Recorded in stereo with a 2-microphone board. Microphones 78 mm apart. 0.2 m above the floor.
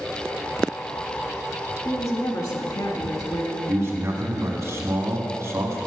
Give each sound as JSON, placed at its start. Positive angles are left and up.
{"t": 1.9, "sound": "a woman speaking", "side_deg": 45, "distance_m": 1.3}
{"t": 3.7, "sound": "a man speaking", "side_deg": -40, "distance_m": 1.5}